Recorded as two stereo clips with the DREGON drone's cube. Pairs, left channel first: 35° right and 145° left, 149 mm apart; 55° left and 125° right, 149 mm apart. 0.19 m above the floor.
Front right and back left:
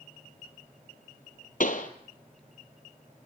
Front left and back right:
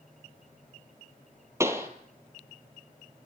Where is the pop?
55° right, 2 m.